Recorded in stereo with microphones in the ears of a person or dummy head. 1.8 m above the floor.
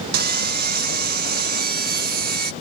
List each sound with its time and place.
0.1 s sawing: 50° right (ahead or behind)